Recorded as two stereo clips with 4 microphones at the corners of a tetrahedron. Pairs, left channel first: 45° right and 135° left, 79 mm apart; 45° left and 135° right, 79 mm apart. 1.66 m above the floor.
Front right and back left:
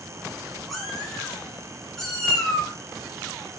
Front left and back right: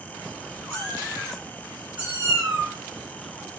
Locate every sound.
0.7 s a cat meowing: 40° left, 1.3 m; by 2.7 s 130° right, 1.5 m